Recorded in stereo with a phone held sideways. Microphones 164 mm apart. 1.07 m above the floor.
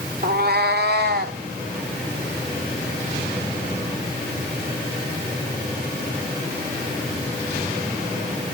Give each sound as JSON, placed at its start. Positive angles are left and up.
{"t": 0.2, "sound": "a cat meowing", "side_deg": -60, "distance_m": 1.2}